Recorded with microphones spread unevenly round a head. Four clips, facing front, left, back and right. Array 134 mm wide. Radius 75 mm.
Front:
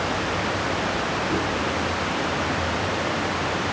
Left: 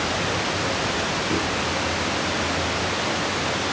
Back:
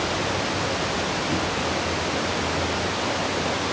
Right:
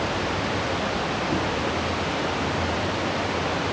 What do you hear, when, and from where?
Only background noise.